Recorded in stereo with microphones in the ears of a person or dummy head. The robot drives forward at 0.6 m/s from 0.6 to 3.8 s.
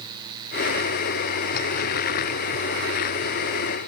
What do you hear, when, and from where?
Only background noise.